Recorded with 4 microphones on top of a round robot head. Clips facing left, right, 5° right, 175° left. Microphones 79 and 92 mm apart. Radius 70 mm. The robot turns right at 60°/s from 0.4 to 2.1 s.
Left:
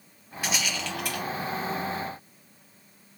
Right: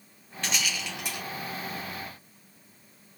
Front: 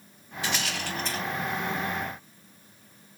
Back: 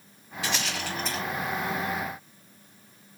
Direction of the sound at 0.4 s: 170° left.